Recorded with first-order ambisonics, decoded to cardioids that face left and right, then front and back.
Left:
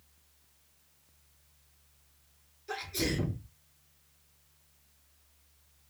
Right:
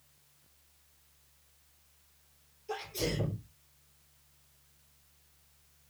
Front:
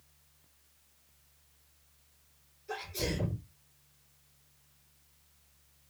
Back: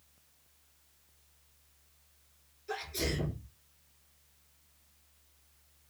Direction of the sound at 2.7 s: 105° left.